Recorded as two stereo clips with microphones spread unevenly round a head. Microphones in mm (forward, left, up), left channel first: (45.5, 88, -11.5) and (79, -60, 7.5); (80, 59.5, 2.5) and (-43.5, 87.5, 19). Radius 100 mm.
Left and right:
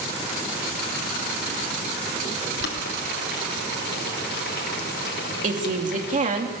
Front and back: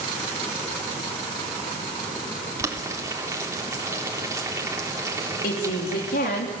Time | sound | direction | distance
2.6 | boiling | 105° left | 3.5 m
5.4 | a woman speaking | 45° right | 3.5 m